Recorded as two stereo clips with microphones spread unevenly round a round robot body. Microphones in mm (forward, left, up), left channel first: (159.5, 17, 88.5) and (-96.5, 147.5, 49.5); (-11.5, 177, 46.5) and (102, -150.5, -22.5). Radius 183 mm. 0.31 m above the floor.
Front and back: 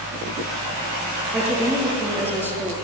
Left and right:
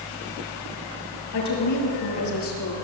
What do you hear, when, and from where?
1.3 s a woman speaking: 70° left, 7.5 m